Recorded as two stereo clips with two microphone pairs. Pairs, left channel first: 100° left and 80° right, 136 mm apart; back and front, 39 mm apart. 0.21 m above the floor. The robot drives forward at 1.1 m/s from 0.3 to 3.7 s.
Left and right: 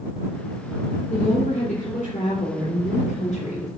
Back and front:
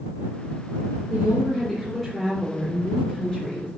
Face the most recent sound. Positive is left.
turn(degrees=120)